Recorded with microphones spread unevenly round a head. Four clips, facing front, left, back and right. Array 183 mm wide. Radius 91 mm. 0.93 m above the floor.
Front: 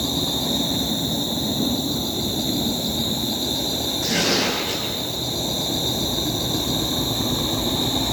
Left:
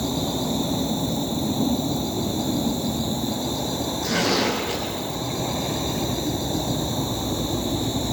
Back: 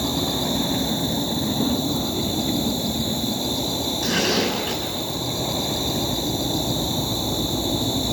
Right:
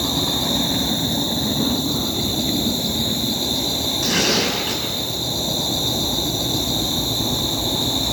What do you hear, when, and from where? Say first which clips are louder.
0.0 s an insect: right 1 dB, back 1 dB; straight behind, 0.7 m
4.0 s tearing paper: right 1 dB, even; 125° right, 8.5 m